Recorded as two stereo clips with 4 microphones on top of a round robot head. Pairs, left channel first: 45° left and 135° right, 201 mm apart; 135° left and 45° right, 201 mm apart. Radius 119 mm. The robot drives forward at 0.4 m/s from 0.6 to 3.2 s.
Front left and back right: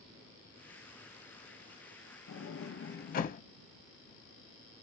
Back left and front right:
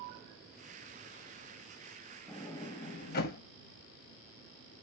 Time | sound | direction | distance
2.3 | a sliding door | 55° left | 0.6 m